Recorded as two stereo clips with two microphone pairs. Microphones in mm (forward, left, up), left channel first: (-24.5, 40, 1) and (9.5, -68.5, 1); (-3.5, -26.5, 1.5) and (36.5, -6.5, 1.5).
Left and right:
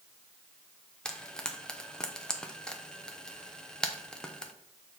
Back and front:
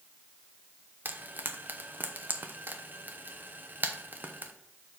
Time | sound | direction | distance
1.1 | frying | 25° left | 0.7 m